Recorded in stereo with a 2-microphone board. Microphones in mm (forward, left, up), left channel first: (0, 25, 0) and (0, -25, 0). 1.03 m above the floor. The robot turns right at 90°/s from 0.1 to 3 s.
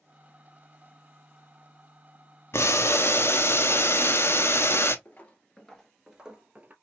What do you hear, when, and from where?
2.5 s boiling: 70° left, 0.6 m; by 5.0 s 110° left, 0.6 m
5.0 s footsteps: 35° left (ahead or behind), 1.2 m; by 6.7 s 30° right (ahead or behind), 1.2 m